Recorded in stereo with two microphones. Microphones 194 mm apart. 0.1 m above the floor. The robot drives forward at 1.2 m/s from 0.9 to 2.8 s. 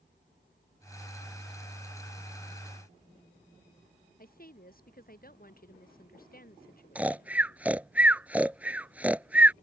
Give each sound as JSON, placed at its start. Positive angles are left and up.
{"t": 4.2, "sound": "a woman speaking", "side_deg": 45}
{"t": 7.0, "sound": "snoring", "side_deg": -5}